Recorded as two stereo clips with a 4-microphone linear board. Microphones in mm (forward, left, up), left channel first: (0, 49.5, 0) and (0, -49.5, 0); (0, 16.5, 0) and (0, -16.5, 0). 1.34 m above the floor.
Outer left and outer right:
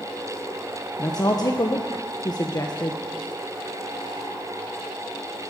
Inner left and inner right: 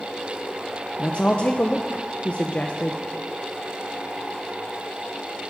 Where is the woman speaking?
40° left (ahead or behind), 1.2 m.